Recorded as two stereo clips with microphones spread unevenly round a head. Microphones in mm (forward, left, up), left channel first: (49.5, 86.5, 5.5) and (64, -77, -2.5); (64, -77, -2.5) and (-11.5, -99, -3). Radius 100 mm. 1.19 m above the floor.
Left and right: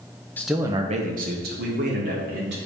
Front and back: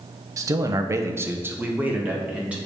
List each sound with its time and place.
0.4 s a man speaking: 175° left, 0.7 m; by 2.6 s 90° right, 2 m